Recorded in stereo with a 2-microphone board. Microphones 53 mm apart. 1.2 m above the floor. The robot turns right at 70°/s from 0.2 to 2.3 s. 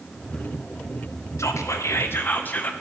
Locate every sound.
1.4 s whispering: 80° left, 0.7 m; by 2.7 s 140° left, 0.7 m